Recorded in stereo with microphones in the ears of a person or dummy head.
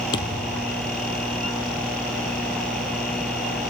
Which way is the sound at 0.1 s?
30° left (ahead or behind).